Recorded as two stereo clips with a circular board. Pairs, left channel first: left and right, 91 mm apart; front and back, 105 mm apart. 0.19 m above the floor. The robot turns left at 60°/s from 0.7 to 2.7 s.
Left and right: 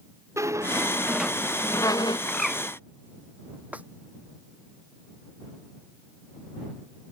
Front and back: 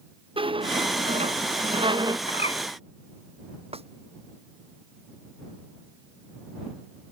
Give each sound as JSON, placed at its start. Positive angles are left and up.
{"t": 0.4, "sound": "a squeak", "azimuth_deg": -145}
{"t": 2.3, "sound": "a bird", "azimuth_deg": 10}
{"t": 3.7, "sound": "a snare drum", "azimuth_deg": -165}